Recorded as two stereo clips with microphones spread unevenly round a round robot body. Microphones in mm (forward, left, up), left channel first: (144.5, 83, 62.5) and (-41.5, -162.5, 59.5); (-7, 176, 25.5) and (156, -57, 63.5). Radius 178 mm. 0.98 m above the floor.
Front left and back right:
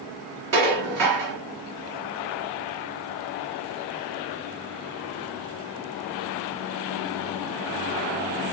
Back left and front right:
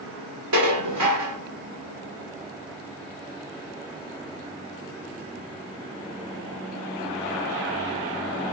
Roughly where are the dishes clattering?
Right.